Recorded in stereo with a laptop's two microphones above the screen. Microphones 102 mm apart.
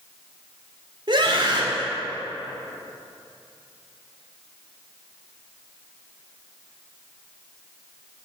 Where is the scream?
50° right (ahead or behind), 2.5 m.